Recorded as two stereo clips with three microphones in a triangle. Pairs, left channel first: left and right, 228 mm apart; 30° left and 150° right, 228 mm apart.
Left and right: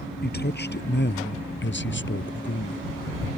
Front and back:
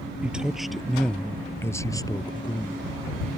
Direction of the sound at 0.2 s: 125° left.